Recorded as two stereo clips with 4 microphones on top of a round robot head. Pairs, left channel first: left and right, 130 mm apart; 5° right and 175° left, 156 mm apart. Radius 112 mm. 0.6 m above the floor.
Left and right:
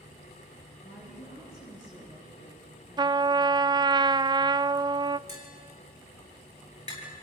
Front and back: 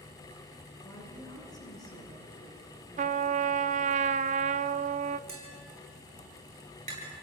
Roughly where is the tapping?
Behind left.